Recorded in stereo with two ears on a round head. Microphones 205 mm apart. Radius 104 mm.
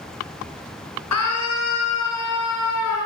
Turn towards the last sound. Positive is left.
turn(degrees=80)